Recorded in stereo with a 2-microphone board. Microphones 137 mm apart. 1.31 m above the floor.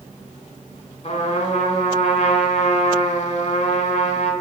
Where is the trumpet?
50° left (ahead or behind), 1.4 m.